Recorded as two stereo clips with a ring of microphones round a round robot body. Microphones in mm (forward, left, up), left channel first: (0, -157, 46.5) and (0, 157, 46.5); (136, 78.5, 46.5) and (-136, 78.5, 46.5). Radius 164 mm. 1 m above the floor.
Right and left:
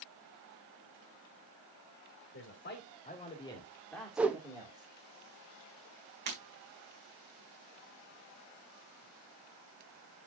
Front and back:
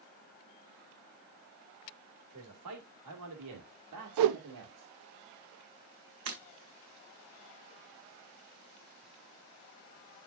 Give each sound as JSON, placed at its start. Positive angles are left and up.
{"t": 2.3, "sound": "a man speaking", "azimuth_deg": -140, "distance_m": 2.5}
{"t": 4.2, "sound": "a whoosh", "azimuth_deg": 175, "distance_m": 0.5}
{"t": 6.3, "sound": "breaking glass", "azimuth_deg": 145, "distance_m": 4.5}